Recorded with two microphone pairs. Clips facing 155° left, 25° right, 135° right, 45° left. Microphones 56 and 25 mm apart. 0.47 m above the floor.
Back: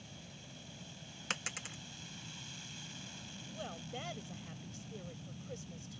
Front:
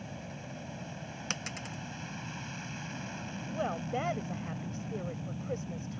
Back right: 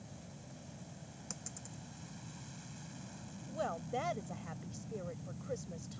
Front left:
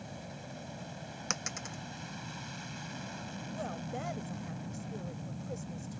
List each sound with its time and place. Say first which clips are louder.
0.0 s an aircraft: front 10 dB, front left 8 dB; 15° left
1.3 s a dropped coin: even, front left 14 dB; 70° left
3.5 s a woman speaking: front 12 dB, back right 3 dB; 65° right